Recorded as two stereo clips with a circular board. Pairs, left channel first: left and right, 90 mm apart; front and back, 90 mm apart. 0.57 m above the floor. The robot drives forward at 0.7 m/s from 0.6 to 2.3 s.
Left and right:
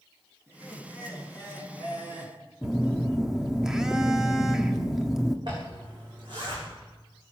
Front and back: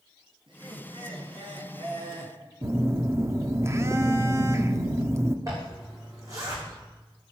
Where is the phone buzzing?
170° right, 1.1 m.